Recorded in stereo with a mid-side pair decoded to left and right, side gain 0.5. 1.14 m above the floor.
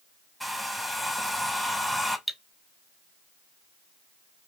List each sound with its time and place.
0.4 s a hair dryer: 5° right, 0.8 m
2.3 s cutlery clinking: 5° right, 0.7 m